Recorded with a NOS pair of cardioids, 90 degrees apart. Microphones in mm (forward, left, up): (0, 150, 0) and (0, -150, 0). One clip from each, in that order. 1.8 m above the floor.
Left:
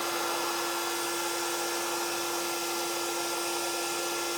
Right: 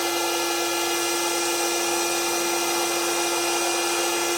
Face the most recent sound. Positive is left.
turn(degrees=-55)